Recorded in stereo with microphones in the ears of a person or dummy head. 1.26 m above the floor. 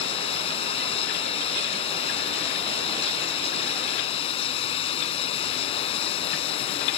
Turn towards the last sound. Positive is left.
turn(degrees=35)  # may be behind; listen again after turning